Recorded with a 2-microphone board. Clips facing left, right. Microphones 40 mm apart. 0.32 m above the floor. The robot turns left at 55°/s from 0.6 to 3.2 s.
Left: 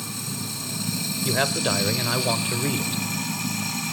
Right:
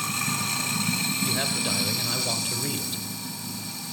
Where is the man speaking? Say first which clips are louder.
Left 4 dB; 25° left (ahead or behind), 0.9 m; by 3.0 s 5° left (ahead or behind), 0.9 m.